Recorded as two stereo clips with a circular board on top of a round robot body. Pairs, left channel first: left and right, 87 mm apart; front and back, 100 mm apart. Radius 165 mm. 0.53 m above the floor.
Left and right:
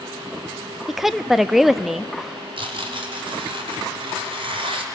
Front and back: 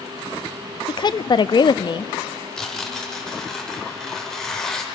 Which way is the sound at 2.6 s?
85° right.